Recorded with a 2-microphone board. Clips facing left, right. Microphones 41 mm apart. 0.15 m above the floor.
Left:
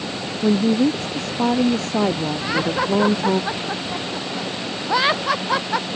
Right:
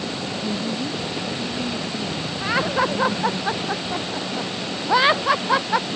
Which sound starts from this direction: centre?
Laughter, at 2.4 s.